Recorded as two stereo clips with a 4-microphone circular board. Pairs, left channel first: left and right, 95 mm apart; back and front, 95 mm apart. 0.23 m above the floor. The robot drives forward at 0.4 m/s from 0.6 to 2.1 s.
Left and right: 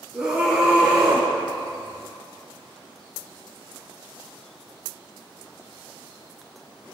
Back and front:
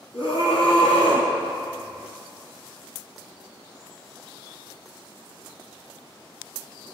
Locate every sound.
0.1 s a scream: 170° right, 4.5 m; by 1.3 s 175° right, 4.5 m